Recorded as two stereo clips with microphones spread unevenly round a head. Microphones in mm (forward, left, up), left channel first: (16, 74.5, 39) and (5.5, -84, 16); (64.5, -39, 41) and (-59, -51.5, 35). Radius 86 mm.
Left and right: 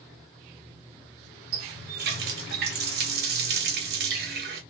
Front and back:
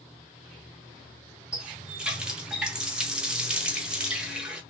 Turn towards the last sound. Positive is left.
turn(degrees=-90)